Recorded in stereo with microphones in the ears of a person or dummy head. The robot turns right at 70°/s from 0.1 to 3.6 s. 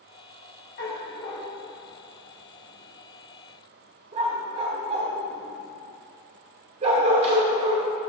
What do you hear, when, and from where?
0.8 s a dog barking: 45° left (ahead or behind), 2.0 m; by 7.9 s 35° right (ahead or behind), 2.0 m